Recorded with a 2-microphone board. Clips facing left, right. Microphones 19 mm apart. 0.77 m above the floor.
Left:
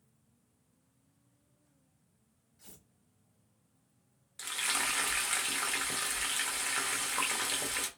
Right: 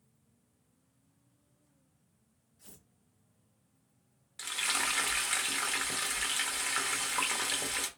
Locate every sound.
2.6 s tearing paper: 70° left (ahead or behind), 2.5 m
4.4 s frying: 10° right (ahead or behind), 1.0 m